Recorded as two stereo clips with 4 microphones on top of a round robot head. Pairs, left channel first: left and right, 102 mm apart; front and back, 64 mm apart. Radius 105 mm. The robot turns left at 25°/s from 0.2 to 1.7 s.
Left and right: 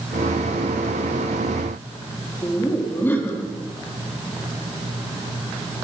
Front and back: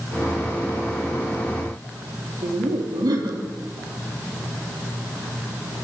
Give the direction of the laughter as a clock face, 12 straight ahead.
7 o'clock.